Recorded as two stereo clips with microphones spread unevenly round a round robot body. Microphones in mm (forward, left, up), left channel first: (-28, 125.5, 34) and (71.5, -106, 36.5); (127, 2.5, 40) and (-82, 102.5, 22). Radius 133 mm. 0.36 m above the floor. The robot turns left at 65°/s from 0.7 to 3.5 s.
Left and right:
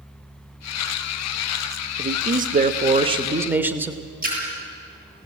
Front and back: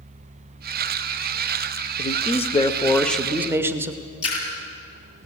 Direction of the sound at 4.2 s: 10° right.